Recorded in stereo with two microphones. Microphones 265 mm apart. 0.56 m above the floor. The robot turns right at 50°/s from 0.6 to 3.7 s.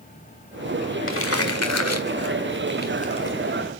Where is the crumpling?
50° left (ahead or behind), 1.7 m; by 3.6 s centre (ahead or behind), 1.7 m.